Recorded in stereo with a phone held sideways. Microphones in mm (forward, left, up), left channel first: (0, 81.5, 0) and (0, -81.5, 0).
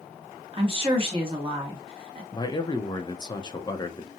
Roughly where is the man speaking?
Left.